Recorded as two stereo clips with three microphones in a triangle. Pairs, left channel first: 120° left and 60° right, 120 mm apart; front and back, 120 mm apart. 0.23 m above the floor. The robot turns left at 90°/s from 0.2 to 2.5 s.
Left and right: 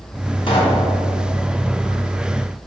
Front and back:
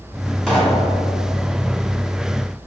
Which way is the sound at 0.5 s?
85° left.